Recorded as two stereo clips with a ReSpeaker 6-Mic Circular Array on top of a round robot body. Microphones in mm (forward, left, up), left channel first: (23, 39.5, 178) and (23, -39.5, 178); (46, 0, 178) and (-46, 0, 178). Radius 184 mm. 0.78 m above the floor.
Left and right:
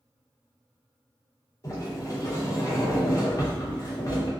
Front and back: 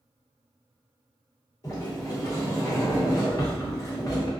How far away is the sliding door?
About 1.0 m.